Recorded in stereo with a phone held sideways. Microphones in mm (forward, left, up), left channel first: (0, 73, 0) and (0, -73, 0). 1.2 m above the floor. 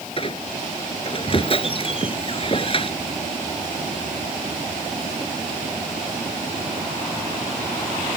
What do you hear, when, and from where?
0.2 s a squeak: 40° left (ahead or behind)